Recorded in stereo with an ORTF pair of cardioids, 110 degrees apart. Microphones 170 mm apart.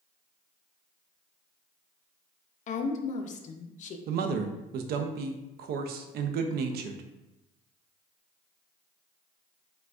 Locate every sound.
2.7 s a woman speaking: 45° left, 0.5 m
4.1 s a man speaking: 70° right, 0.5 m